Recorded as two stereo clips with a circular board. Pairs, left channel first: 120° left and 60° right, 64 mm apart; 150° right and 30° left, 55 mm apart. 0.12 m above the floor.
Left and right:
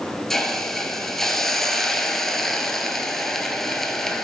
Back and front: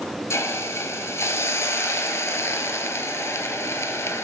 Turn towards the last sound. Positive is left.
turn(degrees=-155)